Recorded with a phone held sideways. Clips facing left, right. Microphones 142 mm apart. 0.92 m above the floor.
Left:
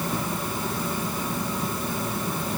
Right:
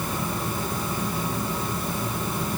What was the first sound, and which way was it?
Only background noise.